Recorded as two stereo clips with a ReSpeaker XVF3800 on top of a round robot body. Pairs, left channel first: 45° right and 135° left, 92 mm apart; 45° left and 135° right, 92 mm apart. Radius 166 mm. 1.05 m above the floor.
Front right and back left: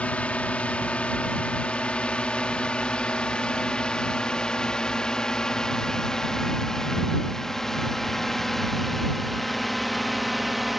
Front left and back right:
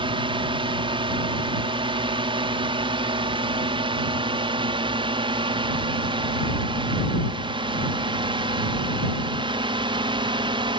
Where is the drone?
120° right; by 10.8 s 135° right.